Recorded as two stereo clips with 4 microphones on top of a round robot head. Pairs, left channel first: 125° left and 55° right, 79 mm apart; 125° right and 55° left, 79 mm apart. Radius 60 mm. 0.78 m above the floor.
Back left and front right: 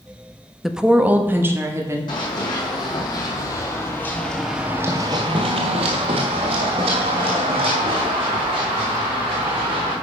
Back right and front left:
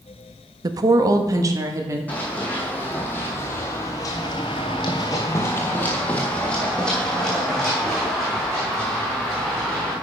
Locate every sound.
0.6 s a woman speaking: 35° left, 0.7 m; by 2.0 s straight ahead, 1.7 m
2.1 s running footsteps: 160° left, 2.5 m; by 9.9 s 40° right, 5 m